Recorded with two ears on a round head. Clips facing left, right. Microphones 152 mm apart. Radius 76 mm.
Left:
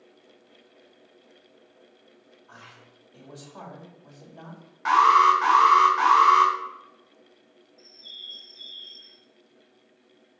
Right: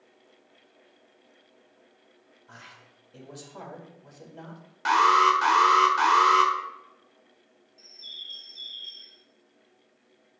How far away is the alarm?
About 1.5 m.